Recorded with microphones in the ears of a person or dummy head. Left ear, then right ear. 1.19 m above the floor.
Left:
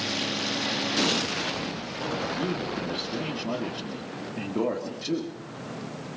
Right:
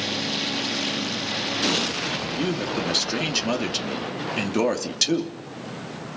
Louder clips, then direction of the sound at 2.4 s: Right 4 dB; 70° right (ahead or behind).